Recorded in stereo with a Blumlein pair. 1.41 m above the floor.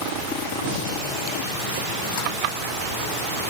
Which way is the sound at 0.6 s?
55° right.